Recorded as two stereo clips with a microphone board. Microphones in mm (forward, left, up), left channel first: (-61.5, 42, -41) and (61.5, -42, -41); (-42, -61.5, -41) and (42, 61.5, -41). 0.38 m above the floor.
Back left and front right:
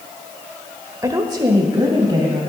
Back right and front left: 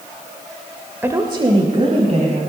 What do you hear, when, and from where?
1.0 s a woman speaking: straight ahead, 0.8 m; by 2.4 s 25° left, 2 m